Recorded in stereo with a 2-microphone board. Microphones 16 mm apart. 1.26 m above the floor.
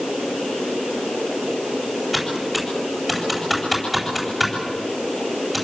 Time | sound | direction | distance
2.1 | typing on a keyboard | centre (ahead or behind) | 9.5 m